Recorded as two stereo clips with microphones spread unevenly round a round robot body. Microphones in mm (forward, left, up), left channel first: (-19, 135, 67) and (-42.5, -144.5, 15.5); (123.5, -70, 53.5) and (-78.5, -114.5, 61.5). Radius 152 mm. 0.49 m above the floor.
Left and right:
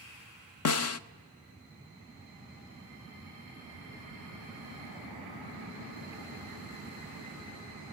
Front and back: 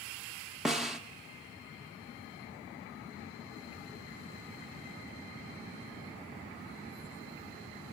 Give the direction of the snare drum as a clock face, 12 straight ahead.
9 o'clock.